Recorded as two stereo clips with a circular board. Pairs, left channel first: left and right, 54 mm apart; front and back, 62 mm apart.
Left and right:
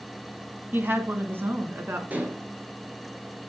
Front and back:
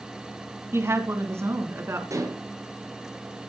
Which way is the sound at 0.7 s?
140° right.